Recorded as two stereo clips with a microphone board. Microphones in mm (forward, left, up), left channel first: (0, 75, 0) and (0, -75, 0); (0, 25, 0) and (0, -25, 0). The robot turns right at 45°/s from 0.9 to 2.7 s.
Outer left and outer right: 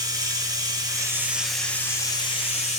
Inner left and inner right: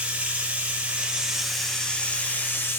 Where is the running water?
30° right, 1.6 m; by 2.8 s 55° left, 1.6 m.